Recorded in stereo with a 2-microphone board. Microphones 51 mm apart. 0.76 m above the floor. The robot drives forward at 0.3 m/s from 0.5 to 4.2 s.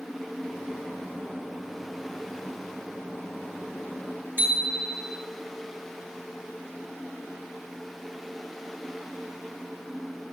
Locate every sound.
4.4 s a bicycle bell: 45° right (ahead or behind), 6.5 m